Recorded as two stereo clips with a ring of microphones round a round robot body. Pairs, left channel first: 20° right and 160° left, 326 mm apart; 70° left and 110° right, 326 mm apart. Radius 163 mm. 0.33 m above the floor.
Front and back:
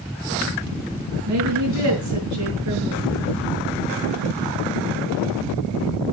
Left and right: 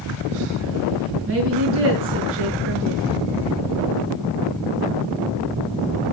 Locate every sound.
1.3 s a woman speaking: 165° right, 5.5 m